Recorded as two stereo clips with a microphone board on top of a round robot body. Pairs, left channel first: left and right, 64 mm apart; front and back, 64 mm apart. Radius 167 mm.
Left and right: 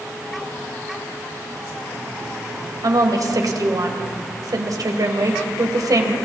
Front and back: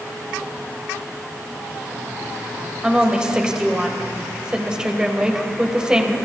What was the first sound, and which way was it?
A woman speaking, 100° right.